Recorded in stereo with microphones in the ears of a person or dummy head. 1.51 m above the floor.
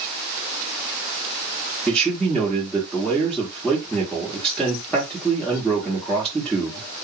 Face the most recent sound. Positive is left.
turn(degrees=10)  # may be behind; listen again after turning